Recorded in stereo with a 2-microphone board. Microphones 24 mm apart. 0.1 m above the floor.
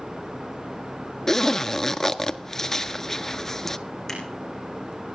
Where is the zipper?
15° left (ahead or behind), 0.6 m.